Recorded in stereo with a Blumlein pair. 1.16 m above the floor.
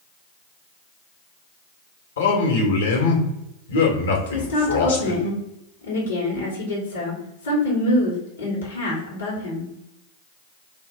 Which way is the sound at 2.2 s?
65° left.